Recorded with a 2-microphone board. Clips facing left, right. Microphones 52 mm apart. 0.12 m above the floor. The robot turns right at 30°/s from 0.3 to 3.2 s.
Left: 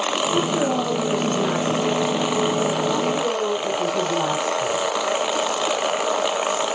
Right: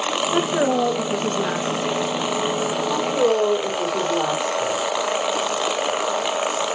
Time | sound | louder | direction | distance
0.3 | a woman speaking | right 3 dB | 65° right | 1.9 m
2.9 | a woman speaking | right 2 dB | 70° right (ahead or behind) | 4.5 m